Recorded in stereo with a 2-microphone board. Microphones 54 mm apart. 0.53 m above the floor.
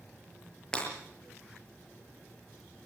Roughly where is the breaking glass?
Centre.